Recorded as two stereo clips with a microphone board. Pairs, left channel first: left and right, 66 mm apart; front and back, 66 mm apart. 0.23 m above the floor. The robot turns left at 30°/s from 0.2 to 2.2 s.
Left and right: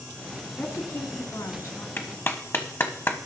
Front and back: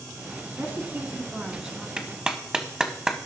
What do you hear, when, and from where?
0.6 s a woman speaking: 140° left, 2.5 m; by 1.9 s 100° left, 2.5 m
2.0 s a clap: 115° left, 1.1 m; by 3.2 s 105° left, 1.1 m